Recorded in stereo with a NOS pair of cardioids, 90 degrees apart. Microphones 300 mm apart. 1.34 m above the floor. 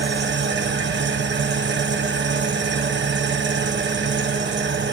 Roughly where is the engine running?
Ahead right.